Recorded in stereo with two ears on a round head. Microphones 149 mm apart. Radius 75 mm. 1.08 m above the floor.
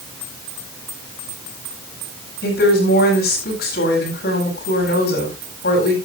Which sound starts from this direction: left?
A woman speaking, at 2.4 s.